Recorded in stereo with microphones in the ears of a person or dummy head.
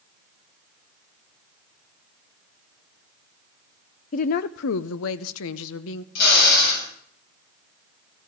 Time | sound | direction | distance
4.1 | a woman speaking | 45° left (ahead or behind) | 0.6 m
6.2 | a drill | 60° left (ahead or behind) | 7.5 m